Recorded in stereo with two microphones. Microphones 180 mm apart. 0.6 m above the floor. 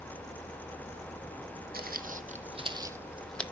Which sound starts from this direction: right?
Footsteps, at 1.7 s.